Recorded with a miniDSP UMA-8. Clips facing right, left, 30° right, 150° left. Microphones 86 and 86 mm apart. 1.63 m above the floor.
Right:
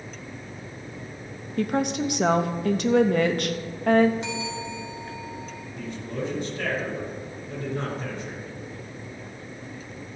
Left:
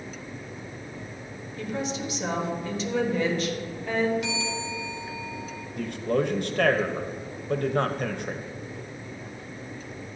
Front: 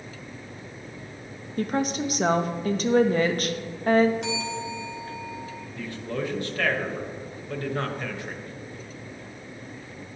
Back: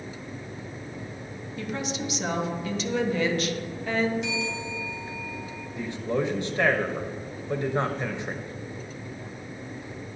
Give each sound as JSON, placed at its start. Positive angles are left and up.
{"t": 1.6, "sound": "a woman speaking", "azimuth_deg": -70, "distance_m": 0.7}
{"t": 4.2, "sound": "a bell", "azimuth_deg": -30, "distance_m": 2.5}
{"t": 5.8, "sound": "a man speaking", "azimuth_deg": 85, "distance_m": 0.9}